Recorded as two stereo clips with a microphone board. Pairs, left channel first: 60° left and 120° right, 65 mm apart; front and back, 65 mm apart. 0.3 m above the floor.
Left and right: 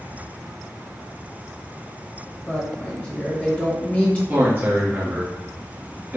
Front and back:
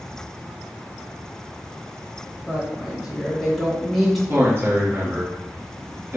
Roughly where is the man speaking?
Behind.